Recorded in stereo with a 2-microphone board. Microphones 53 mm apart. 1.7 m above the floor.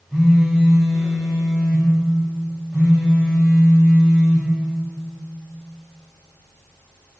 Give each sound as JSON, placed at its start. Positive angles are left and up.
{"t": 0.1, "sound": "a phone buzzing", "side_deg": 15, "distance_m": 2.0}